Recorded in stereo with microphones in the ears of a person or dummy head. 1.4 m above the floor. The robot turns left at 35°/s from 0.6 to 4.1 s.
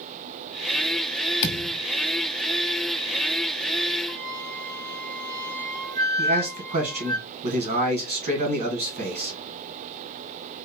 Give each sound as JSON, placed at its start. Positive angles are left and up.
{"t": 1.4, "sound": "a thud", "side_deg": 60, "distance_m": 1.5}
{"t": 4.1, "sound": "a flute", "side_deg": 20, "distance_m": 1.9}
{"t": 6.2, "sound": "a man speaking", "side_deg": -30, "distance_m": 1.5}